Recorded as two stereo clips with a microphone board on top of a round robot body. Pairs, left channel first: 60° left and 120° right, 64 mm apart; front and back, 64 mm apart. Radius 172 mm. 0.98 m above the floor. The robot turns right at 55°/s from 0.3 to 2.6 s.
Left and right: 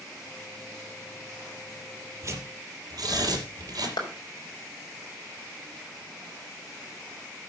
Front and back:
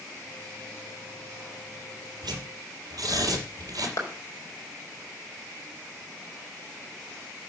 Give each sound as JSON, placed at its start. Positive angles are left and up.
{"t": 2.2, "sound": "tearing paper", "azimuth_deg": -170, "distance_m": 5.0}
{"t": 4.0, "sound": "a clap", "azimuth_deg": 45, "distance_m": 5.0}